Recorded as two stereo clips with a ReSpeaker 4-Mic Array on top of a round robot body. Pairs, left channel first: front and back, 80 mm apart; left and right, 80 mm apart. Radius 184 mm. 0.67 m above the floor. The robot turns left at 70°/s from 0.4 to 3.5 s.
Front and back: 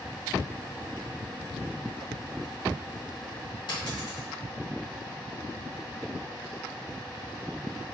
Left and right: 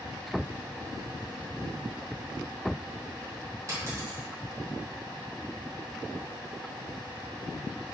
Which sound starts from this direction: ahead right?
A dropped coin, at 3.7 s.